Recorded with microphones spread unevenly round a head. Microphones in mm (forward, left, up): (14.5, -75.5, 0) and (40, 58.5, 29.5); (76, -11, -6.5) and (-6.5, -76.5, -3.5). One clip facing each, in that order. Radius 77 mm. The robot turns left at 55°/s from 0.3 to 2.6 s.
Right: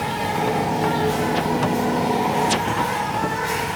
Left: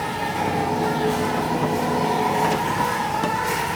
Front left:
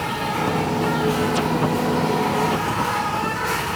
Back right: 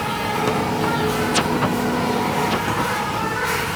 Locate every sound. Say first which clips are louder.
0.0 s an insect: right 2 dB, back right 1 dB; 95° right, 1.2 m; by 3.8 s 140° left, 1.2 m